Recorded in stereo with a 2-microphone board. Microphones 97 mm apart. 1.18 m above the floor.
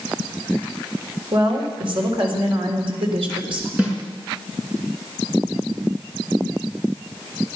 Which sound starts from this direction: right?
A woman speaking, at 1.3 s.